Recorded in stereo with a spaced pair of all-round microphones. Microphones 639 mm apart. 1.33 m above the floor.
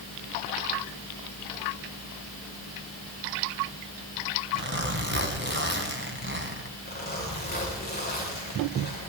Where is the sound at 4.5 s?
15° right (ahead or behind), 2.5 m.